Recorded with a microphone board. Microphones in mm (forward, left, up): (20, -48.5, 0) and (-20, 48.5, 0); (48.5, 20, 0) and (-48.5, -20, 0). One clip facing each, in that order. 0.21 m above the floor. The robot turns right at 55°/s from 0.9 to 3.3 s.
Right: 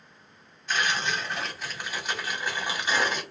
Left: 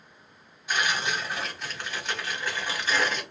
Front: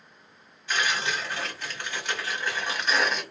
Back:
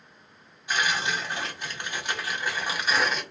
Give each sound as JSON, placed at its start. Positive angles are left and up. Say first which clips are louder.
{"t": 0.7, "sound": "tearing paper", "louder": "even, back 1 dB", "azimuth_deg": 170, "distance_m": 1.1}